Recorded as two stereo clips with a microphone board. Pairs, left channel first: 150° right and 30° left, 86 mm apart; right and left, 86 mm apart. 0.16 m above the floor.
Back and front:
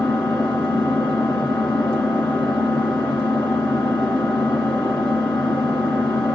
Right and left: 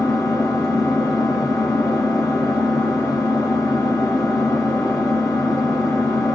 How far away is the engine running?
About 1.6 m.